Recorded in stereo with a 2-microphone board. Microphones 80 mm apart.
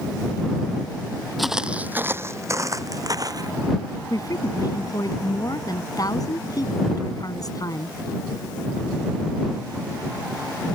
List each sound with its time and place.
1.4 s footsteps: centre (ahead or behind); by 3.5 s 50° right (ahead or behind)
4.1 s a woman speaking: 50° left (ahead or behind)